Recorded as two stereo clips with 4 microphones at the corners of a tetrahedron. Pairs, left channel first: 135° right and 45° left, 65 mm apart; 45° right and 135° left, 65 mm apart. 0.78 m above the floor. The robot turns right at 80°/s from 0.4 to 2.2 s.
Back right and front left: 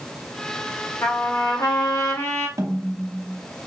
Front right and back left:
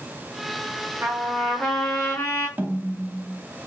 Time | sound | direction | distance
1.0 | a trumpet | straight behind | 0.9 m
2.6 | a snare drum | 75° left | 0.6 m